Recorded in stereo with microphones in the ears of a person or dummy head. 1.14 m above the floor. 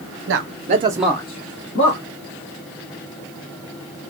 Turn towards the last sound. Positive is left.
turn(degrees=60)  # may be behind; listen again after turning